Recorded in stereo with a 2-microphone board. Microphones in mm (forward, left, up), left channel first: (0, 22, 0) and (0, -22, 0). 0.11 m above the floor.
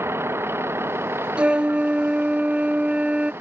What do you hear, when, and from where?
0.0 s a vehicle: 75° right (ahead or behind); by 3.4 s 60° right (ahead or behind)
1.4 s a flute: 25° right (ahead or behind)